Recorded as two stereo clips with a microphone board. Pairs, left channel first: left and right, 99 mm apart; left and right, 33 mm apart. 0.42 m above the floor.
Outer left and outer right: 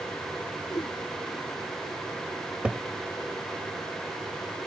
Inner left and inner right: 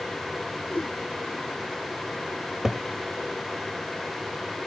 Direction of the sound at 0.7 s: 45° left (ahead or behind).